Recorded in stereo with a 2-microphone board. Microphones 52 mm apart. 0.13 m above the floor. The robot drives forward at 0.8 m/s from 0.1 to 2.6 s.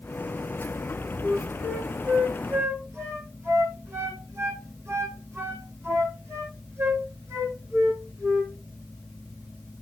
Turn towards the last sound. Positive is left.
turn(degrees=-65)  # may be behind; listen again after turning